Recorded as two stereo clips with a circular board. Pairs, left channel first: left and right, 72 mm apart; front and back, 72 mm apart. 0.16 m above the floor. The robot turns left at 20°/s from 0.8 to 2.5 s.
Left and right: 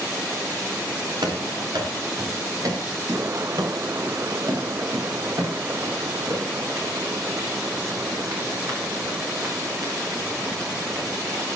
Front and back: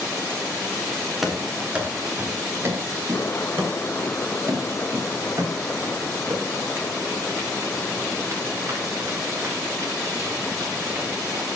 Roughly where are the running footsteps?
Right.